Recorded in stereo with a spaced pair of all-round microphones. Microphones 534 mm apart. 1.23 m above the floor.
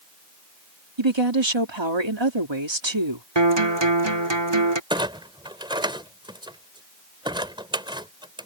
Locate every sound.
1.0 s a woman speaking: 55° right (ahead or behind)
3.4 s a guitar: 50° right (ahead or behind)
4.9 s a clunk: 10° right (ahead or behind)